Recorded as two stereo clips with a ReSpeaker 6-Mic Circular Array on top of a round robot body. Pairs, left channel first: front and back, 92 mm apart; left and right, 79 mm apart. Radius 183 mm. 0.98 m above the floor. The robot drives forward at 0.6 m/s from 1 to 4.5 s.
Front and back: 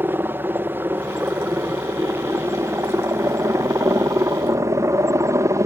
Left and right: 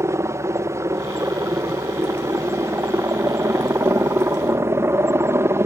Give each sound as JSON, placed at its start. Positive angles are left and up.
{"t": 0.0, "sound": "a helicopter", "azimuth_deg": -125}